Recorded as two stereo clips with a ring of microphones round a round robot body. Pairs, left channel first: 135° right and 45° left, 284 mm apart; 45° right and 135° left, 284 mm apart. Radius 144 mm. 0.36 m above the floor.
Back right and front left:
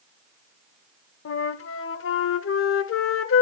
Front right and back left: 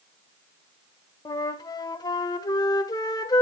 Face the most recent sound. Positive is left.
turn(degrees=-115)